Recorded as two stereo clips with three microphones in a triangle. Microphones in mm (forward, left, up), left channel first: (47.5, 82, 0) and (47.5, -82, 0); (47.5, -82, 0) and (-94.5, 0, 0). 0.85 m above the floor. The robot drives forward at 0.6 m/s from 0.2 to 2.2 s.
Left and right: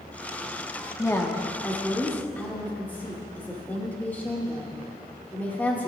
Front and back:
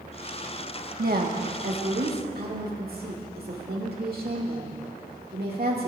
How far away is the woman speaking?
About 1.2 m.